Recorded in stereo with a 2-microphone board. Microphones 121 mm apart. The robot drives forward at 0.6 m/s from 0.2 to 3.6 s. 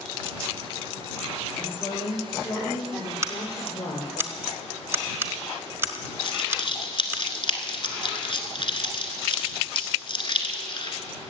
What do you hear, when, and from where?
1.6 s a woman speaking: 50° left (ahead or behind), 5.5 m; by 4.2 s 60° left (ahead or behind), 5 m
3.2 s scissors: 25° right (ahead or behind), 0.8 m; by 7.2 s 20° right (ahead or behind), 1.0 m
6.2 s crumpling: 45° left (ahead or behind), 1.4 m